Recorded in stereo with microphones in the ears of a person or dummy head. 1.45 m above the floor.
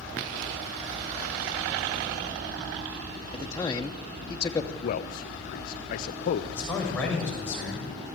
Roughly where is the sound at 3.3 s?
Centre.